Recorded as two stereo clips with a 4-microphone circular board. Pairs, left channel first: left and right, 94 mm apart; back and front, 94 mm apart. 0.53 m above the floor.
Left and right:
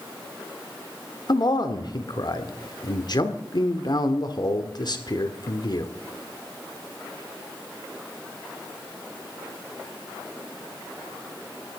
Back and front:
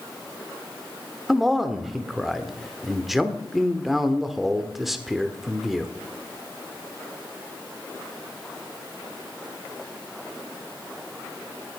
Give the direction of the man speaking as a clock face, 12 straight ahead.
9 o'clock.